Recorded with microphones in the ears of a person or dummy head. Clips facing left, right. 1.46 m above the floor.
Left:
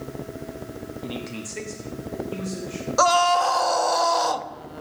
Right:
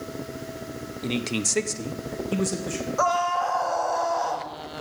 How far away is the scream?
About 0.7 m.